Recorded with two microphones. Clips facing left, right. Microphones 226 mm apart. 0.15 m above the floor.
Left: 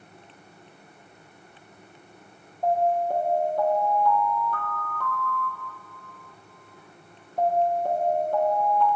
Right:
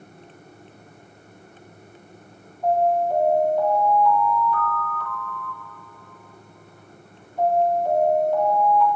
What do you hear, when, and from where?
2.6 s an alarm: 50° left (ahead or behind), 3.5 m